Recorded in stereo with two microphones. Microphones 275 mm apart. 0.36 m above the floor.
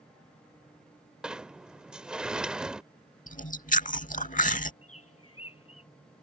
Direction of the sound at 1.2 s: 5° right (ahead or behind).